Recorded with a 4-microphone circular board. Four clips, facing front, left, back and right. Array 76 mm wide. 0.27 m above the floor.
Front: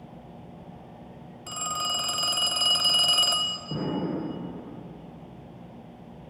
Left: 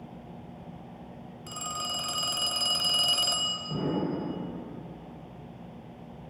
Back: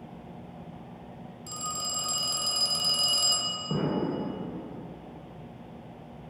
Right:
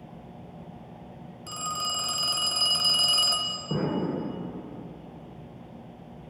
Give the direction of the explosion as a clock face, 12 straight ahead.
4 o'clock.